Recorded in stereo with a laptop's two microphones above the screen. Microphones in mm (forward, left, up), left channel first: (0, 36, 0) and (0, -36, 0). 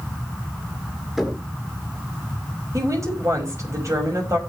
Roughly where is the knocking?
Centre.